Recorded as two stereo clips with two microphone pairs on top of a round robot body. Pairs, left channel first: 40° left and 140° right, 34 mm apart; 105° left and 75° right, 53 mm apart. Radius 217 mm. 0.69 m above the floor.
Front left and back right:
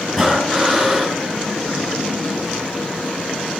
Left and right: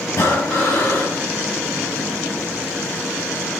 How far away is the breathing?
About 5 m.